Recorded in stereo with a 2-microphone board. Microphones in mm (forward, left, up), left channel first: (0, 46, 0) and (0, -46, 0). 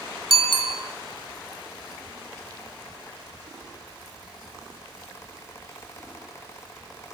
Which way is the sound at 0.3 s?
65° right (ahead or behind).